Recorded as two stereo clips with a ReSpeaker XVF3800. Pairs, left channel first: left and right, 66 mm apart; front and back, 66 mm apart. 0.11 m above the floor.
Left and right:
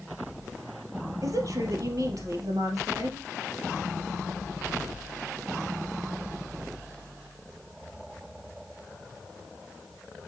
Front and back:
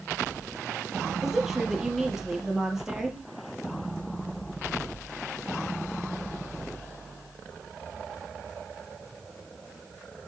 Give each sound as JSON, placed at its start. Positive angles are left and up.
{"t": 1.2, "sound": "a woman speaking", "azimuth_deg": -100, "distance_m": 3.0}